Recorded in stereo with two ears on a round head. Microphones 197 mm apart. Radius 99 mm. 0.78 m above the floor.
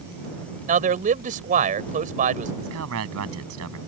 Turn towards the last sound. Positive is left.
turn(degrees=-80)